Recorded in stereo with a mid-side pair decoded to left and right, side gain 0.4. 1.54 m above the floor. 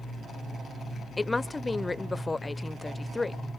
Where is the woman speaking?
30° left, 0.9 m.